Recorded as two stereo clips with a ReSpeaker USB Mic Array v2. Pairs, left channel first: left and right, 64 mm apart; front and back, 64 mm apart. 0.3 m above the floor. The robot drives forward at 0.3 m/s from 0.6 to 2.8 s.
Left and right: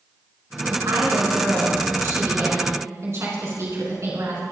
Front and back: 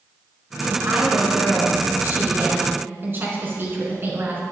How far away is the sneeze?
No sneeze in this recording.